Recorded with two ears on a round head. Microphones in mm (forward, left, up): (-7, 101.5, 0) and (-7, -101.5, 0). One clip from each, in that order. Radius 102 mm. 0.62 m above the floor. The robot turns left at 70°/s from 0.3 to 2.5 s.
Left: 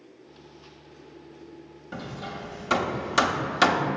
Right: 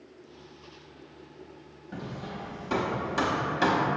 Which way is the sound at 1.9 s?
35° left (ahead or behind).